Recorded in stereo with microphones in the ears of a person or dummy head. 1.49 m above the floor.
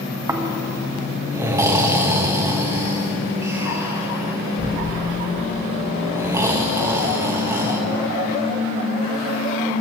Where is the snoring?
15° right (ahead or behind), 1.4 m.